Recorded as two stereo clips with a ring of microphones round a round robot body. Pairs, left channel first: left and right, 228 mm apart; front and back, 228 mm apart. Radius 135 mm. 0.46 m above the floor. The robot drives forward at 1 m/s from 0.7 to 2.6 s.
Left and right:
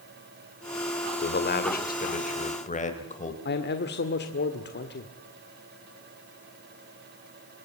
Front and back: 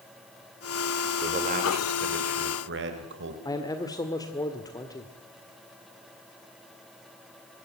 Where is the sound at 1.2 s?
125° left, 2.5 m; by 3.4 s 145° left, 3.5 m.